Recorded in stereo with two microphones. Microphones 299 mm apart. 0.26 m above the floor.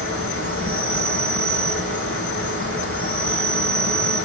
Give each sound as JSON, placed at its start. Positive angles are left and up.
{"t": 0.0, "sound": "an insect", "side_deg": -45, "distance_m": 4.5}